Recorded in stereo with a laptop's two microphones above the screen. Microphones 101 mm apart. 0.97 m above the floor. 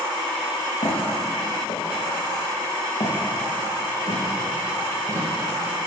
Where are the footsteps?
80° left, 5.5 m; by 5.3 s 55° left (ahead or behind), 4.5 m.